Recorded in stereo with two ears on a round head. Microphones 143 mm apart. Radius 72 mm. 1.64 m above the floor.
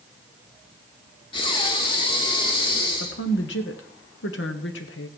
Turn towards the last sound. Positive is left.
turn(degrees=85)